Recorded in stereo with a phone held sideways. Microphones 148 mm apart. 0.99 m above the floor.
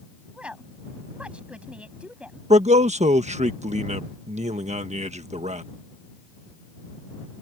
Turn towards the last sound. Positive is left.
turn(degrees=-50)  # may be behind; listen again after turning